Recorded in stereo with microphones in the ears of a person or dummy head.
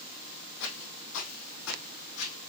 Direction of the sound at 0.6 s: 65° left (ahead or behind).